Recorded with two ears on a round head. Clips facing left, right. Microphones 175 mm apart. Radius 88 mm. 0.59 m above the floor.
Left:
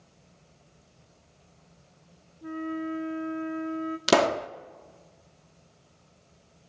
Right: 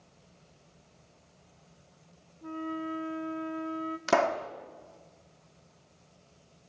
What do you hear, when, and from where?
2.4 s a flute: 20° left (ahead or behind), 1.1 m
4.1 s a pop: 45° left (ahead or behind), 0.5 m